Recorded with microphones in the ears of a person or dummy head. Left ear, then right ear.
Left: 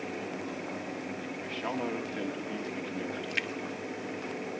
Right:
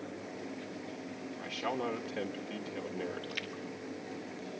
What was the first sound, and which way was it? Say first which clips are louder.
A man speaking: even; 5° right (ahead or behind).